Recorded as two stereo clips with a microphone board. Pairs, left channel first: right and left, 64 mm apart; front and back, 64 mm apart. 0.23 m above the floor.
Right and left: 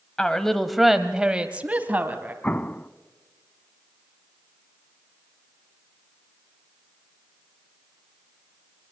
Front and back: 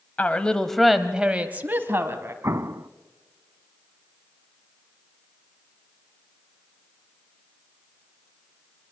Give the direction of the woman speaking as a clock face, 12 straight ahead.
1 o'clock.